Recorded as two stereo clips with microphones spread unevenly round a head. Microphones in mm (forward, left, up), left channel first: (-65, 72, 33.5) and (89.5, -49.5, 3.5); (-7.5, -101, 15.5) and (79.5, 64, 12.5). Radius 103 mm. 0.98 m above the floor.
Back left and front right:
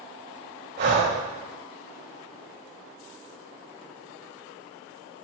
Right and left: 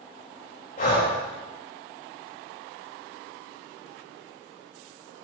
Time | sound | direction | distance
0.8 | breathing | 75° right | 4.5 m